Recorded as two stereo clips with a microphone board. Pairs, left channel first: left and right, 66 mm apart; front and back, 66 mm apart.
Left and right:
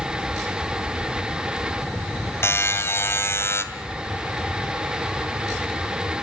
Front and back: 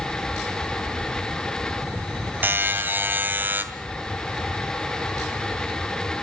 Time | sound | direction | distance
2.4 | a buzzer | 130° left | 2.5 m